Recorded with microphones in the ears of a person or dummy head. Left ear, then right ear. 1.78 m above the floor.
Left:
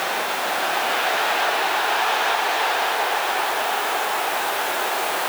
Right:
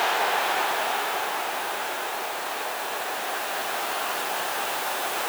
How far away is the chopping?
No chopping in this recording.